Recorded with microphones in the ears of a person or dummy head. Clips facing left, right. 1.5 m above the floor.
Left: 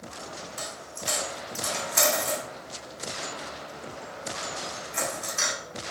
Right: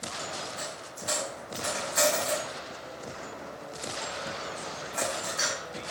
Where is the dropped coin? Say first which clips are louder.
Left 1 dB; 40° left (ahead or behind), 1.8 m.